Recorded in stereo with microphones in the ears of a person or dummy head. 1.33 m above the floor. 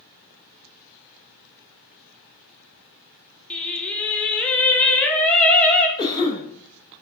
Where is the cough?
25° left (ahead or behind), 2.0 m.